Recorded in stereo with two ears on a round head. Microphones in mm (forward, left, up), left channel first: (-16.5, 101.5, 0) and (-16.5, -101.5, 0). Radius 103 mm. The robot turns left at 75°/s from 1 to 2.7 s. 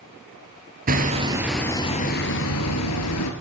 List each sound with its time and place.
0.9 s hammering: 140° right, 2.5 m; by 3.3 s 95° left, 2.5 m